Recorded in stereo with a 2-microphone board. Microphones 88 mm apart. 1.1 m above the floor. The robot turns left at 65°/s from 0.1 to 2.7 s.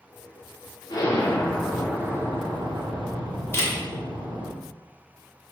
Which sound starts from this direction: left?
A camera shutter, at 3.5 s.